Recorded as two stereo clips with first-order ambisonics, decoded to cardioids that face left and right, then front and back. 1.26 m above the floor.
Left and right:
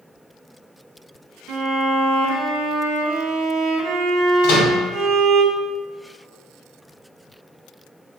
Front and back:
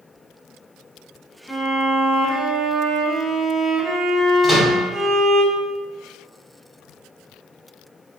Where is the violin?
90° right, 0.7 m.